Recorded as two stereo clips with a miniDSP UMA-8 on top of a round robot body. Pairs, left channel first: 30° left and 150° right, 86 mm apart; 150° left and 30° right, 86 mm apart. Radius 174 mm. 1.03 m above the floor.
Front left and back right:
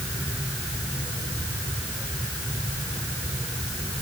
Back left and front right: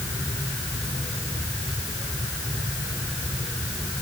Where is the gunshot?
I don't hear a gunshot.